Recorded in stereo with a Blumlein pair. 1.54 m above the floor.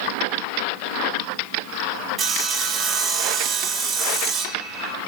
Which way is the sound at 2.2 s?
25° right.